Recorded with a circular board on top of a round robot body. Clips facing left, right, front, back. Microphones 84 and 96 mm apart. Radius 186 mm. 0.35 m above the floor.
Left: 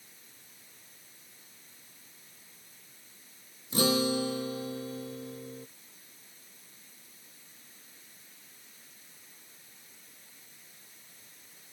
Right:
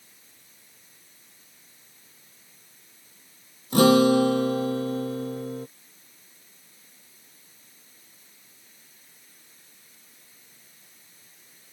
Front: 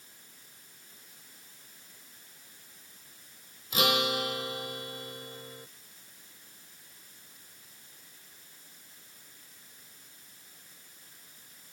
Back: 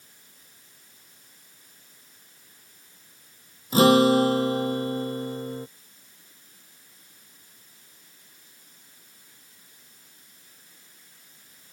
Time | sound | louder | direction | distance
3.7 | a guitar | right 11 dB, back 12 dB | 125° right | ?